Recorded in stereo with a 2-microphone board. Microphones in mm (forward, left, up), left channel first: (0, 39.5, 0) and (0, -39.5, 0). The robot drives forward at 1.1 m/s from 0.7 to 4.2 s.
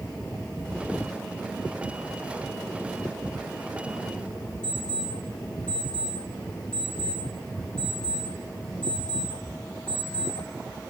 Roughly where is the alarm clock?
Centre.